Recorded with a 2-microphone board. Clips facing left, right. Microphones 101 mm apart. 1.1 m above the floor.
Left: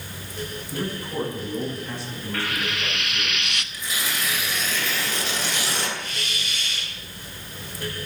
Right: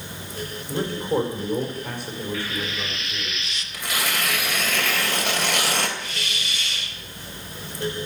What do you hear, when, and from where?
0.7 s a man speaking: 70° right (ahead or behind), 4 m; by 3.3 s 60° right (ahead or behind), 5.5 m
2.3 s frying: 75° left (ahead or behind), 0.8 m
3.7 s tearing paper: 80° right, 3 m
6.0 s a hiss: centre (ahead or behind), 7 m